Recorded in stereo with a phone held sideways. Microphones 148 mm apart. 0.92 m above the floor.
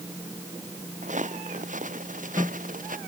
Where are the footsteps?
55° right (ahead or behind); by 3.0 s 65° right (ahead or behind).